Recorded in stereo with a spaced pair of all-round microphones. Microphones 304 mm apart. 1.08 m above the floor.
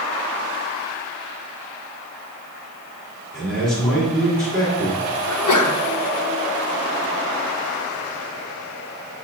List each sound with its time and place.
3.3 s a man speaking: centre (ahead or behind), 3 m
5.3 s a sneeze: 75° left (ahead or behind), 0.8 m